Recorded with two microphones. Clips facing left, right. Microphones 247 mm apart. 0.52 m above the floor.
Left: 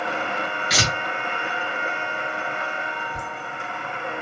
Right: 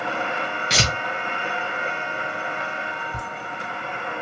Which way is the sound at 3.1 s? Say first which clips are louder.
Even; 60° right (ahead or behind).